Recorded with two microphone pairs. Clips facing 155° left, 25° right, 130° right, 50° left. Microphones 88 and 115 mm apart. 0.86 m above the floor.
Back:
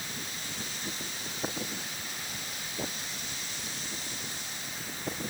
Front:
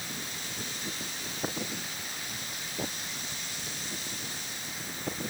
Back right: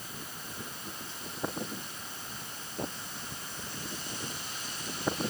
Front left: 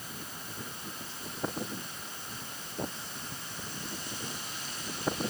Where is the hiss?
I don't hear a hiss.